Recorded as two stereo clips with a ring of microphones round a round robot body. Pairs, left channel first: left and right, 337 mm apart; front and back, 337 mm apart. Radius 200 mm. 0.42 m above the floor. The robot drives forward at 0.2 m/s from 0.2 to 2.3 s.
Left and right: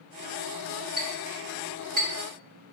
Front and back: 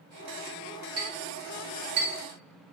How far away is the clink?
About 2.0 m.